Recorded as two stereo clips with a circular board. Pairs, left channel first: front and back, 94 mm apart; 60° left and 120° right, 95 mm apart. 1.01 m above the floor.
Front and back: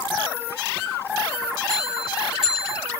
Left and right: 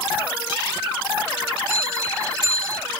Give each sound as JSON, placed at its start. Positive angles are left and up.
{"t": 1.7, "sound": "a bell", "azimuth_deg": 95, "distance_m": 4.5}